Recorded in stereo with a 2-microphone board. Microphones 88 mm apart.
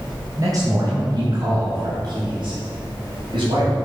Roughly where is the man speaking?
Right.